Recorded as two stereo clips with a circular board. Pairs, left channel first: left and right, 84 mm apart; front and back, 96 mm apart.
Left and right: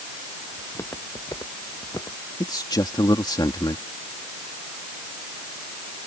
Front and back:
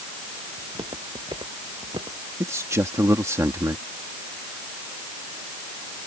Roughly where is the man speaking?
Behind left.